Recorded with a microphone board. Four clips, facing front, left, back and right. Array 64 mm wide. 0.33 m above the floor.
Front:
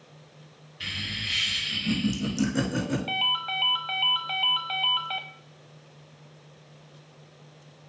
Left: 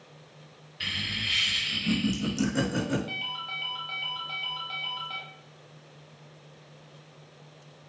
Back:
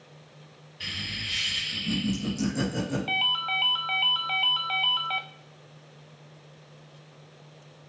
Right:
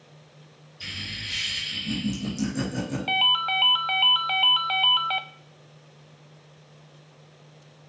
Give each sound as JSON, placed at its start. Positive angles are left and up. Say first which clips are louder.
{"t": 0.8, "sound": "laughter", "louder": "left 4 dB, front 1 dB", "azimuth_deg": 85, "distance_m": 2.0}
{"t": 3.1, "sound": "a ringtone", "louder": "right 12 dB, back 1 dB", "azimuth_deg": -90, "distance_m": 0.6}